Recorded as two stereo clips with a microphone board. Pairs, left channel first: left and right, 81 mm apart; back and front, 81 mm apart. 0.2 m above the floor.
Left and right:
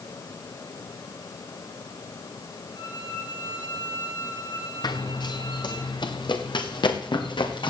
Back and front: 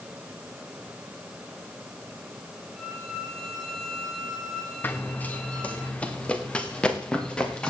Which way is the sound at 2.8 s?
100° left.